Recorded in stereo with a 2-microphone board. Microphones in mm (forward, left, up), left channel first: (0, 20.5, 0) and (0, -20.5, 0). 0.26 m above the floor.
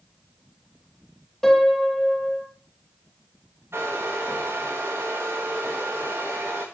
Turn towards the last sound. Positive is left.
turn(degrees=-70)  # may be behind; listen again after turning